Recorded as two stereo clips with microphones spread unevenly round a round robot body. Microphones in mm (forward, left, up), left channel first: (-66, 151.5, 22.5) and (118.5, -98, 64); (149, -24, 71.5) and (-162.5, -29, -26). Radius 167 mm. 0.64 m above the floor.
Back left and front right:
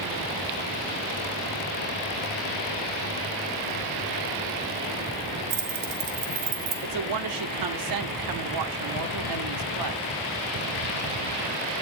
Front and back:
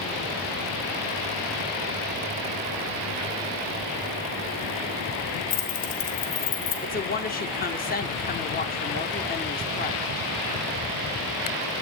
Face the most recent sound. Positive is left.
turn(degrees=-70)